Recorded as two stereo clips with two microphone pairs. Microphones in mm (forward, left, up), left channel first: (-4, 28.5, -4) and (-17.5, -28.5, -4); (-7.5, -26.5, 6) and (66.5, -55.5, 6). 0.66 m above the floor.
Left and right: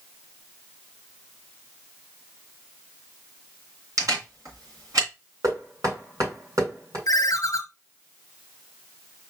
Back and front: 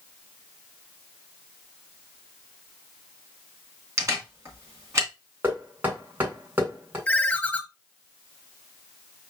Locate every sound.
4.0 s a camera shutter: 75° right, 2.5 m
5.4 s knocking: 85° right, 3 m
7.1 s a ringtone: 85° left, 0.9 m